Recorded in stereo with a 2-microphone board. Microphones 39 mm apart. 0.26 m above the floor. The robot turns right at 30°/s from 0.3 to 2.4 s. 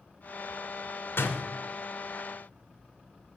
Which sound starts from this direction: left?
A door slam, at 1.2 s.